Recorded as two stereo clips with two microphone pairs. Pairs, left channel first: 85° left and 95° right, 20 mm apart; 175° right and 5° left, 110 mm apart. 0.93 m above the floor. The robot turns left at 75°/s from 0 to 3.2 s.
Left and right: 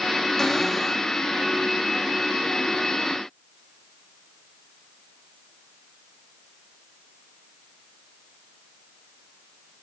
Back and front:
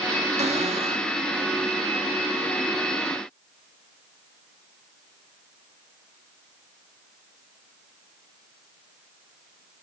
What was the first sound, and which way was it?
A cupboard door, 15° left.